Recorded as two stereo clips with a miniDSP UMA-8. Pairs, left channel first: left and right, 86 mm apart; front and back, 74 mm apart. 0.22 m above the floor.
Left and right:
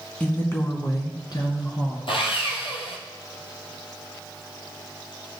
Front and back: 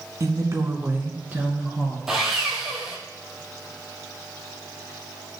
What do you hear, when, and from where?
0.2 s a woman speaking: 165° left, 1.5 m; by 2.0 s 110° left, 3 m
2.1 s sawing: 95° left, 2 m